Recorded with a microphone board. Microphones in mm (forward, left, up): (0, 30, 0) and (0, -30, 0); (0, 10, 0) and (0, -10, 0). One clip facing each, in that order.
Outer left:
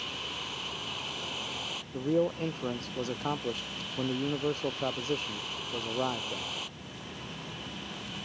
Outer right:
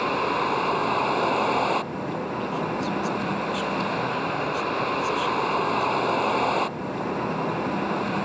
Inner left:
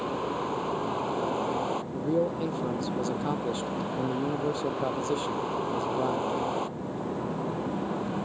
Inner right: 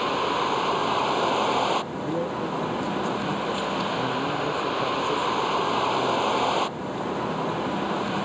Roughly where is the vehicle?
Right.